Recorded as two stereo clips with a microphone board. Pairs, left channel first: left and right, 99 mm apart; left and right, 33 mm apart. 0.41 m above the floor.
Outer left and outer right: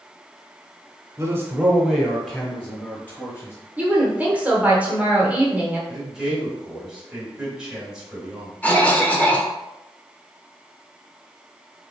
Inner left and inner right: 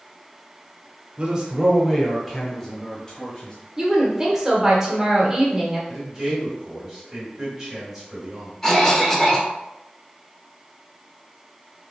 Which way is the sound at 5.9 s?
5° right (ahead or behind).